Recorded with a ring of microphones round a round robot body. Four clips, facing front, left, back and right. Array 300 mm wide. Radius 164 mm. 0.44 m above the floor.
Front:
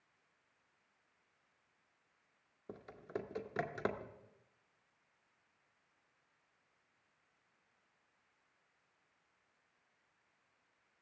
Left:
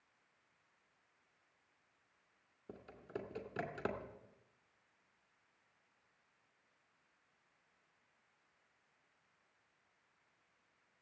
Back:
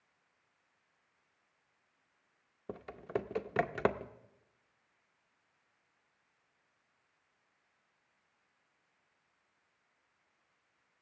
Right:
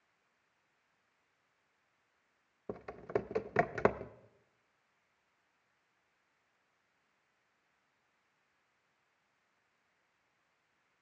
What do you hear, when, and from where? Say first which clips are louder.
2.7 s typing on a keyboard: right 11 dB, back 7 dB; 125° right, 0.6 m